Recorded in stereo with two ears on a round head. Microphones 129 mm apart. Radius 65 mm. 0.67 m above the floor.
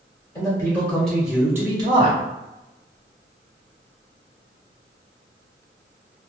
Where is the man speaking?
20° left (ahead or behind), 1.4 m; by 2.2 s 45° right (ahead or behind), 0.9 m.